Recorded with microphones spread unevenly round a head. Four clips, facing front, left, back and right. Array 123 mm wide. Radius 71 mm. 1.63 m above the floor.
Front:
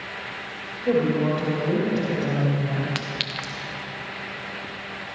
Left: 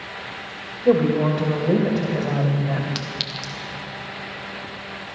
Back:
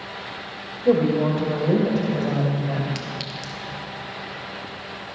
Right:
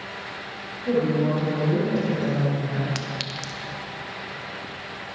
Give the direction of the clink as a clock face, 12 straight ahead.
12 o'clock.